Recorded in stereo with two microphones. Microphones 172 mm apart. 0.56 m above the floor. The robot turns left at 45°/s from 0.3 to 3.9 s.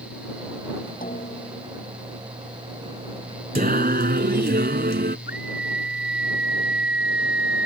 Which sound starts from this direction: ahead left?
A snare drum, at 1.0 s.